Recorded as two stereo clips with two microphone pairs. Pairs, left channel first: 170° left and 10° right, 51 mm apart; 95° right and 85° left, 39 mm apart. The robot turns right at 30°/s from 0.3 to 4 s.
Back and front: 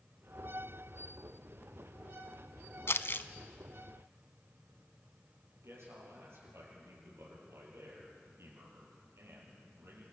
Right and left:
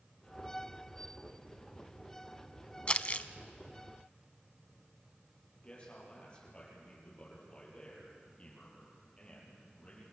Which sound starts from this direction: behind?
Crumpling, at 2.9 s.